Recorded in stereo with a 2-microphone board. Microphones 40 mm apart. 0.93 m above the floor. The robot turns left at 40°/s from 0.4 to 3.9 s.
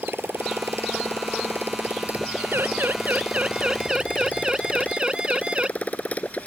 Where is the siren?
70° right (ahead or behind); by 5.7 s 25° right (ahead or behind).